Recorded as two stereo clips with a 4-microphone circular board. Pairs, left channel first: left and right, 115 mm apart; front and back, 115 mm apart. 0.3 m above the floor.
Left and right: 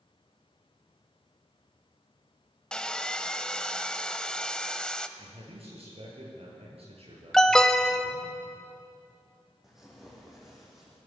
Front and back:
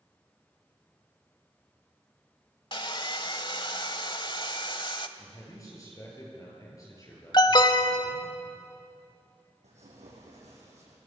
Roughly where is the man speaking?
Ahead right.